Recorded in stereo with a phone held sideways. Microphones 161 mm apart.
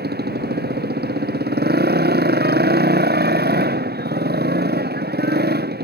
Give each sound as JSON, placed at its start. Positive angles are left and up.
{"t": 0.0, "sound": "a motorcycle", "side_deg": -85}